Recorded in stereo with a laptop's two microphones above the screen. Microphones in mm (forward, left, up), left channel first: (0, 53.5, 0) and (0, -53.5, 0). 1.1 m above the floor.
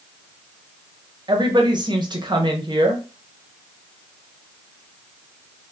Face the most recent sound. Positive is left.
turn(degrees=-45)  # may be behind; listen again after turning